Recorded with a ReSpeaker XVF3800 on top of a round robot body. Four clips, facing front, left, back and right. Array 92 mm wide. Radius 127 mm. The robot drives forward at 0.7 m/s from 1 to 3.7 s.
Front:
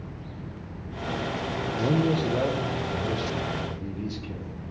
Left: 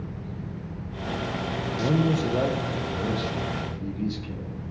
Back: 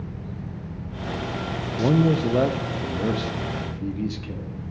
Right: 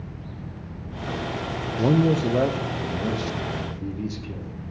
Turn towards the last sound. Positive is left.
turn(degrees=-170)